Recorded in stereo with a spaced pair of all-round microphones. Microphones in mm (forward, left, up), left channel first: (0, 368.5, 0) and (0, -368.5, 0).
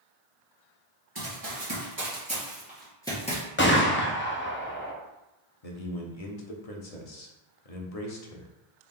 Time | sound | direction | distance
1.1 | running footsteps | 30° right (ahead or behind) | 1.7 m
3.6 | a gunshot | 15° left (ahead or behind) | 0.5 m
5.6 | a man speaking | 55° left (ahead or behind) | 0.8 m